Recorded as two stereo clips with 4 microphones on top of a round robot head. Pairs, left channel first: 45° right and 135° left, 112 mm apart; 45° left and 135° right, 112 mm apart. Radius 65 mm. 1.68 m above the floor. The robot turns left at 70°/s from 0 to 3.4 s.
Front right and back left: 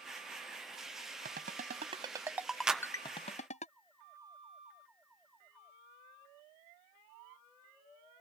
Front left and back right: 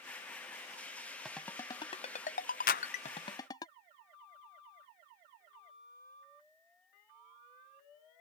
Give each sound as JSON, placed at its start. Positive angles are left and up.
{"t": 1.2, "sound": "a ringtone", "azimuth_deg": 135}
{"t": 2.7, "sound": "a clap", "azimuth_deg": 50}